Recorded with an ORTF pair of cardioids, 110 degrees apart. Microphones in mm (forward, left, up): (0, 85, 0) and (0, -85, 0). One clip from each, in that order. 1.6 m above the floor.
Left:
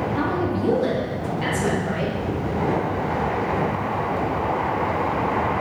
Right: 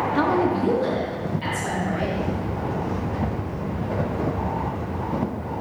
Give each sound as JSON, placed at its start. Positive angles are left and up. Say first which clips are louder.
{"t": 0.1, "sound": "a woman speaking", "louder": "right 3 dB", "azimuth_deg": -35, "distance_m": 0.7}